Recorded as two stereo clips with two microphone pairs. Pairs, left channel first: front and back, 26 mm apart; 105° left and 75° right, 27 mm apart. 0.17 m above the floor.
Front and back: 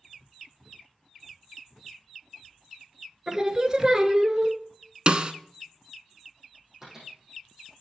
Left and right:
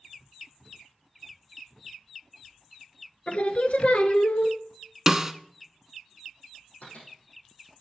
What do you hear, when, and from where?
3.3 s singing: 115° left, 0.6 m
5.1 s a snare drum: 145° right, 0.5 m
6.8 s a microwave: 110° left, 6.5 m